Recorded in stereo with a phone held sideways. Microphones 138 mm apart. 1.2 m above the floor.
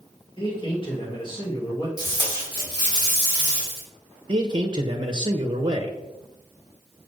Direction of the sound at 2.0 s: 30° left (ahead or behind).